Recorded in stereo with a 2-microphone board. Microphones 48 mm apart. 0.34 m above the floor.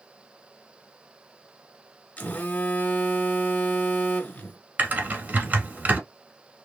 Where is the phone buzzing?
40° left (ahead or behind), 0.8 m.